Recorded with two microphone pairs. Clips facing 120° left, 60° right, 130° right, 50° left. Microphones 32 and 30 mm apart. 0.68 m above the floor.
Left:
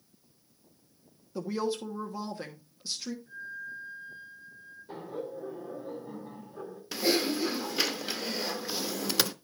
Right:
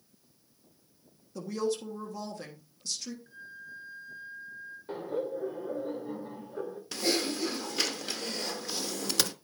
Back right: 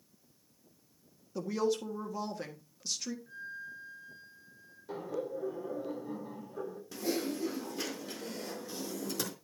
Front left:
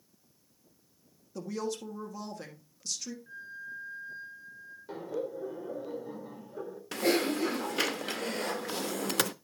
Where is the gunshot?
No gunshot in this recording.